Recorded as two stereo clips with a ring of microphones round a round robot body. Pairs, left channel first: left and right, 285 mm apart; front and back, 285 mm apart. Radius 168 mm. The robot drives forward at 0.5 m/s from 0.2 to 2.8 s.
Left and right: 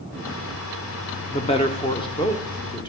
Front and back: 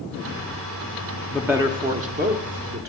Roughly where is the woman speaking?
Left.